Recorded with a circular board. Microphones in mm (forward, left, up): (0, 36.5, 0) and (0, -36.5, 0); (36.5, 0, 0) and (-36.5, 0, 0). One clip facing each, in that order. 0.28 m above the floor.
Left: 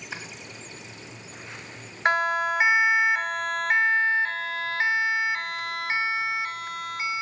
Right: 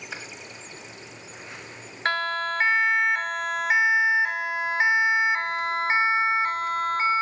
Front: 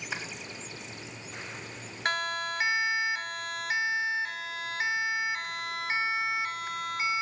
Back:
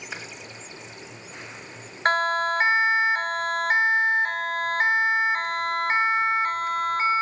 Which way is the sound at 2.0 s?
155° left.